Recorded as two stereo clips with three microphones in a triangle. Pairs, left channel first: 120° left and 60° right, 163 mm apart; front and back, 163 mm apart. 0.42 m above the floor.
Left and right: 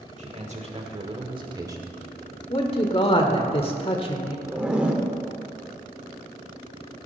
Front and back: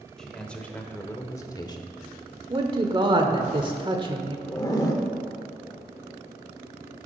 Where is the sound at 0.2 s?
85° right, 1.6 m; by 2.0 s straight ahead, 1.1 m.